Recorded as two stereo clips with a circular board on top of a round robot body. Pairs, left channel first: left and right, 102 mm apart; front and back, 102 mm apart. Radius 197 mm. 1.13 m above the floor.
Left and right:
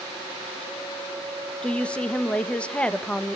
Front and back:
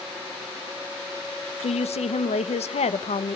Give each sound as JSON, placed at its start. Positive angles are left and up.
{"t": 1.6, "sound": "a woman speaking", "azimuth_deg": 10, "distance_m": 1.4}